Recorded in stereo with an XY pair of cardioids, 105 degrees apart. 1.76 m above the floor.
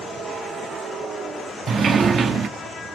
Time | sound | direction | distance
1.7 | a sliding door | 45° right | 0.6 m